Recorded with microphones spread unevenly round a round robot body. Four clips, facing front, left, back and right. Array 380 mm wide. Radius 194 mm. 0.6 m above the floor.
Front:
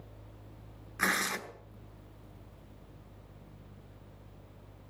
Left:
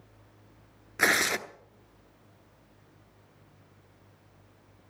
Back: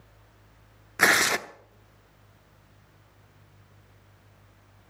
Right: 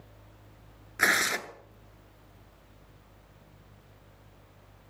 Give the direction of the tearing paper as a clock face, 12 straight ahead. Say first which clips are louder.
Left 1 dB, back 9 dB; 6 o'clock.